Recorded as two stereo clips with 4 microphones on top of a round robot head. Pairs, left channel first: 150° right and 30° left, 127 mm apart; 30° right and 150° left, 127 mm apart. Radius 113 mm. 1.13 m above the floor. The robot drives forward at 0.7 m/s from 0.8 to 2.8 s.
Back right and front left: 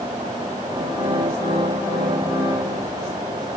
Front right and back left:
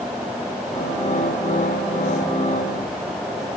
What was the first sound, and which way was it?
Only background noise.